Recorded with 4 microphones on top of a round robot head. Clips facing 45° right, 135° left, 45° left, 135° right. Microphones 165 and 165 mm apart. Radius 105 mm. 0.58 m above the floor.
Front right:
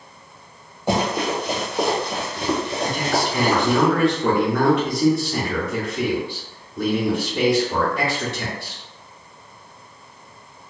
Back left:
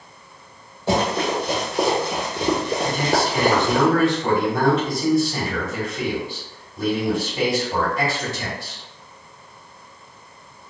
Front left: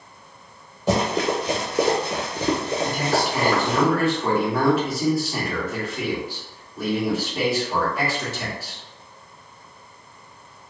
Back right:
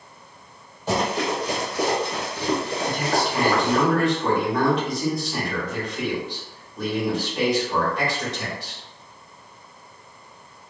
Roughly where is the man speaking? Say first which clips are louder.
Even, front left 2 dB; ahead right.